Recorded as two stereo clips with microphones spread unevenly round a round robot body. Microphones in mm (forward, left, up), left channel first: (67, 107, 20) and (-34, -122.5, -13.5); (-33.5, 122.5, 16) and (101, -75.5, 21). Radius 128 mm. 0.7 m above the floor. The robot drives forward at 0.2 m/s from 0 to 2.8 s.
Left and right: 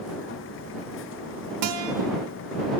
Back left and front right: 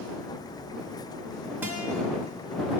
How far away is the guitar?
About 0.7 m.